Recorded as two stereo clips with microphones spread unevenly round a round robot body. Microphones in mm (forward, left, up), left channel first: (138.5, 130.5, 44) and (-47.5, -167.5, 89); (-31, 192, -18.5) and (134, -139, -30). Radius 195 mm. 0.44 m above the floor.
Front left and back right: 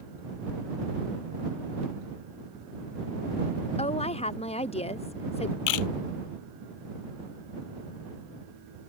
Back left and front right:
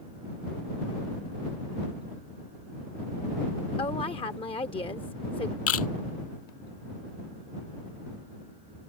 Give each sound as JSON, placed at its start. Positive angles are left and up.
{"t": 3.8, "sound": "a woman speaking", "azimuth_deg": 60}
{"t": 5.7, "sound": "a camera shutter", "azimuth_deg": 65}